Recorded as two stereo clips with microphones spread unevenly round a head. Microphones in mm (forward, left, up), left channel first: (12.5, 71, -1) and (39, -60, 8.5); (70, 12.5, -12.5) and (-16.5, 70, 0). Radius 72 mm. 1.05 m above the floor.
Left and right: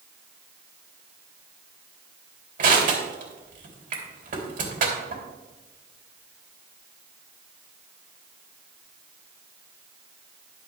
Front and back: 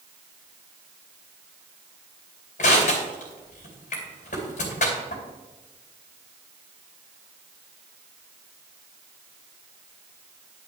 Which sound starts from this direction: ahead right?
Crushing, at 2.6 s.